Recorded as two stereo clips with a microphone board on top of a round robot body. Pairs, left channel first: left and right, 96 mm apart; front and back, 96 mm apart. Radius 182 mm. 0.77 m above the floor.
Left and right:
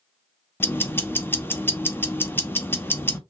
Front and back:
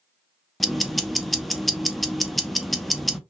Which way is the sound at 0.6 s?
90° left.